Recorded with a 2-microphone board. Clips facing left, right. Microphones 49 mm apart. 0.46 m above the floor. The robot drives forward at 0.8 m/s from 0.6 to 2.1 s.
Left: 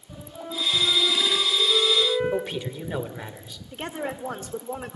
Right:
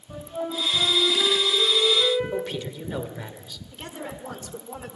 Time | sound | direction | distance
0.1 | a flute | 30° right (ahead or behind) | 6.5 m
2.3 | a man speaking | 15° left (ahead or behind) | 1.6 m
3.7 | a woman speaking | 30° left (ahead or behind) | 1.0 m